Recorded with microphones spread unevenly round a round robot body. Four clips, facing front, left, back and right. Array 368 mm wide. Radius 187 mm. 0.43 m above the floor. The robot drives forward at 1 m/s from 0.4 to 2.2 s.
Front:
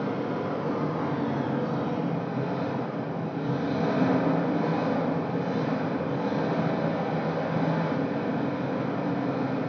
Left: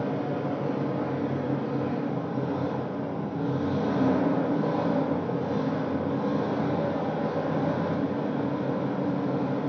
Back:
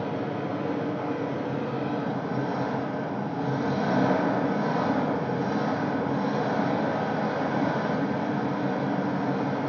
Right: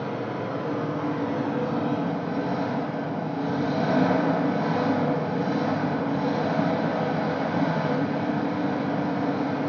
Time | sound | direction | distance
0.0 | an engine running | 30° right | 1.8 m